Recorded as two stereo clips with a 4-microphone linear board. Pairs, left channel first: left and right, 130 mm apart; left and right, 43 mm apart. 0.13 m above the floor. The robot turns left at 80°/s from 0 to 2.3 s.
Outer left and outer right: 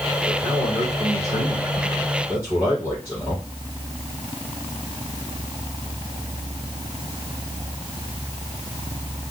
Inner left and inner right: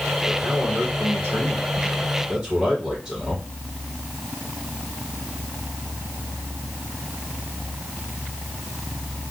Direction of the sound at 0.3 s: 5° right.